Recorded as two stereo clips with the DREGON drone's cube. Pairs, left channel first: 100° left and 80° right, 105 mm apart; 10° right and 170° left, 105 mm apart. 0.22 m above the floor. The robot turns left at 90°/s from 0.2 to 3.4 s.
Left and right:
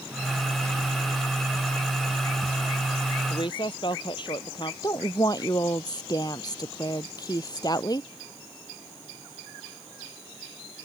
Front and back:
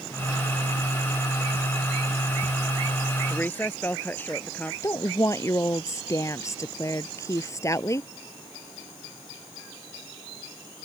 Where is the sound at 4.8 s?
50° left.